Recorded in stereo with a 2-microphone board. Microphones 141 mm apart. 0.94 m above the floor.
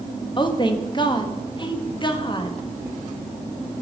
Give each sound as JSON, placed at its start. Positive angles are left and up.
{"t": 0.4, "sound": "a woman speaking", "side_deg": 35, "distance_m": 1.0}